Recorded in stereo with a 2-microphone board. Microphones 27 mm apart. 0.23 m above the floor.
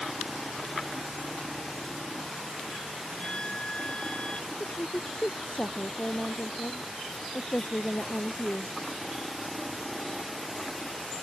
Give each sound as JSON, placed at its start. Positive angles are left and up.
{"t": 3.2, "sound": "a violin", "side_deg": 40}
{"t": 4.5, "sound": "a woman speaking", "side_deg": 60}